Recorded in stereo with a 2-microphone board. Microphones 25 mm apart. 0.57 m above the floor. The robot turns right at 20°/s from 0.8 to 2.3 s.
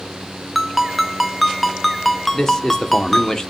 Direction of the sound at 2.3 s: 20° left (ahead or behind).